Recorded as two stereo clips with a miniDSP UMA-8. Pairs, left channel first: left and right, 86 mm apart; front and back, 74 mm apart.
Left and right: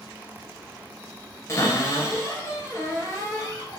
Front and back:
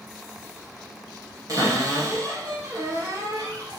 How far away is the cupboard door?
About 1.8 m.